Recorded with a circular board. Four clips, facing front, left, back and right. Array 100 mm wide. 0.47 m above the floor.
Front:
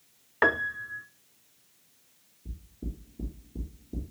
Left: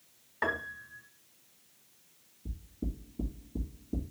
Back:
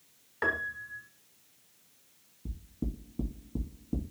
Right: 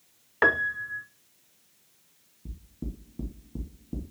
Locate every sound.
0.4 s a piano: 50° right, 0.6 m
2.5 s knocking: 155° right, 2.5 m